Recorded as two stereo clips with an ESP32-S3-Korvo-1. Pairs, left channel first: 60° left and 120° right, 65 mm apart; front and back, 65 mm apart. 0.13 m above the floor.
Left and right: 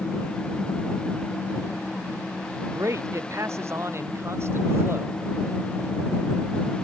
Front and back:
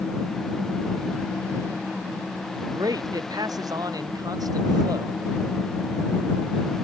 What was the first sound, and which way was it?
A man speaking, 160° right.